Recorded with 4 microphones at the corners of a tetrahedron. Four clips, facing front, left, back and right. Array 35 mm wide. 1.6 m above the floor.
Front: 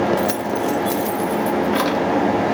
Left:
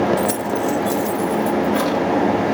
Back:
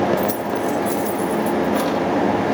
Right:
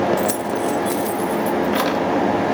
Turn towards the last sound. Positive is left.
turn(degrees=-55)